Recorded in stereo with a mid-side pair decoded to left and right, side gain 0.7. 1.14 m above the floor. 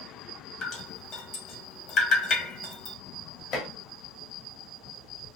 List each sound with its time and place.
0.6 s dripping: 50° left, 2 m
3.5 s dishes clattering: 50° left, 1.8 m